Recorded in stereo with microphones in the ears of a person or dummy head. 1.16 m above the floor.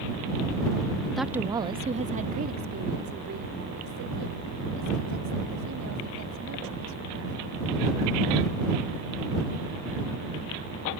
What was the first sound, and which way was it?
A woman speaking, centre (ahead or behind).